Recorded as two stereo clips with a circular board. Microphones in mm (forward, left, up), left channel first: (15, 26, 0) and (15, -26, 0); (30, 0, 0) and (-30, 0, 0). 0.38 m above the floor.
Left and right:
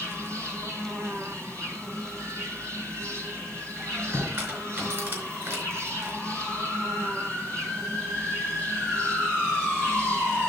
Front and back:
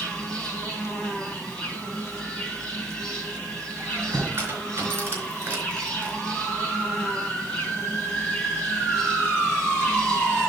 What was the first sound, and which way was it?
An insect, 75° right.